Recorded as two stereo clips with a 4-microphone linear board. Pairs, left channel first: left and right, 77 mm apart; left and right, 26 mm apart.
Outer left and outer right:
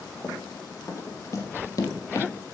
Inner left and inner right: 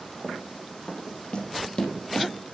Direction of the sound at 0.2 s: 35° left (ahead or behind).